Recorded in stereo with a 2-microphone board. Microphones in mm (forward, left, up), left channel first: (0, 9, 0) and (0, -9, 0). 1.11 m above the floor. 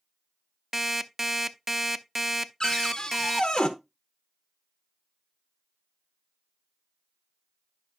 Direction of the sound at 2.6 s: 40° left (ahead or behind).